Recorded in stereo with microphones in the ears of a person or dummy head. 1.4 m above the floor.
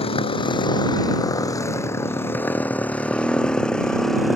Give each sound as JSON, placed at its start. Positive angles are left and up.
{"t": 0.0, "sound": "a motorcycle", "side_deg": 30}